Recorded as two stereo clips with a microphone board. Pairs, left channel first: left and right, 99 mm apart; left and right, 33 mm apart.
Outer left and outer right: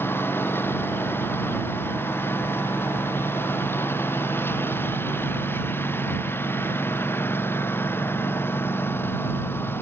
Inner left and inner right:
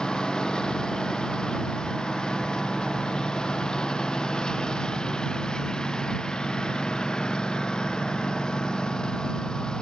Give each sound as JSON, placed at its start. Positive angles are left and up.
{"t": 0.0, "sound": "a lawn mower", "side_deg": 25}